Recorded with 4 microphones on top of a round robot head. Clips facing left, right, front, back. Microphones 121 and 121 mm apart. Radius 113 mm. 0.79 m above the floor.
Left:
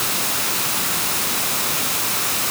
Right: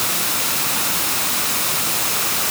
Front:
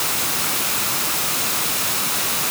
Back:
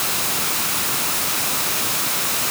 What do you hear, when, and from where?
Only background noise.